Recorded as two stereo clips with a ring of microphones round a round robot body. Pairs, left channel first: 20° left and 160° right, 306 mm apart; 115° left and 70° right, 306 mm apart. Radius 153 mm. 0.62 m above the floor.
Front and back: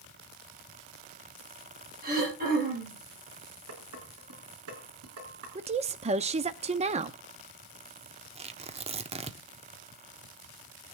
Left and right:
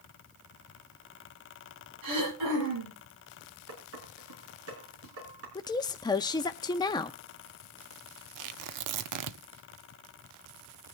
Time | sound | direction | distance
2.0 | throat clearing | 95° right | 9 m
3.7 | dishes clattering | 115° right | 5.5 m
5.5 | a woman speaking | 170° left | 0.6 m
8.3 | tearing paper | 90° right | 0.8 m